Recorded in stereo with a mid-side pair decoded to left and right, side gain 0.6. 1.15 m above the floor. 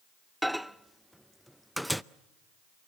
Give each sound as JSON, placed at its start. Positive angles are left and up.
{"t": 0.4, "sound": "a microwave", "azimuth_deg": 0, "distance_m": 0.6}